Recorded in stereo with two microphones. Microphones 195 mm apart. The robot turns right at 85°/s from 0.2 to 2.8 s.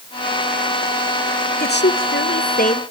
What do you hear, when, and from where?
1.6 s a woman speaking: 45° left, 1.4 m; by 2.8 s 150° left, 1.4 m